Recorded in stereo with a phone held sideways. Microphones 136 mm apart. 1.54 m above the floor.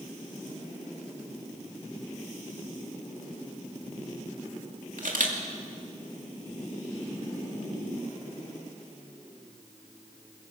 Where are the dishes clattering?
No dishes clattering in this recording.